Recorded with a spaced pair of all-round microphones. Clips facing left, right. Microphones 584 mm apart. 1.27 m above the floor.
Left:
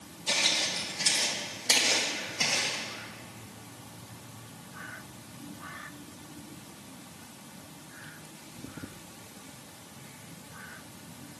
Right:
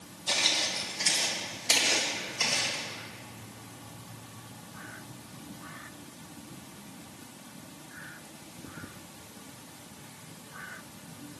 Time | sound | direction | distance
0.3 | footsteps | 50° left (ahead or behind) | 2.5 m